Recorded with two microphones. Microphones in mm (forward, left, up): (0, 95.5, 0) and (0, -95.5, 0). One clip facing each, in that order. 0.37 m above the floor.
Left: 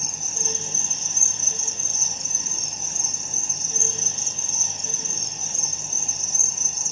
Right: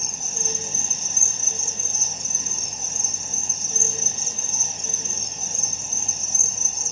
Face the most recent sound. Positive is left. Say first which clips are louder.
# right 1 dB
turn(degrees=-35)  # may be behind; listen again after turning